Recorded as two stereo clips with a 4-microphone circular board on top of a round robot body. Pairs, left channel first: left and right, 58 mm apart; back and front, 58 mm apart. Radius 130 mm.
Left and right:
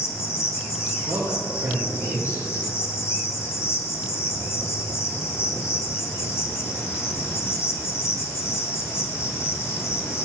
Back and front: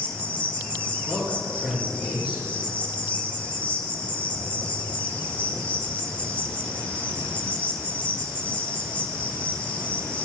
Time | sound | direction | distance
0.0 | an insect | 110° left | 2.5 m
1.1 | a woman speaking | 75° right | 4.5 m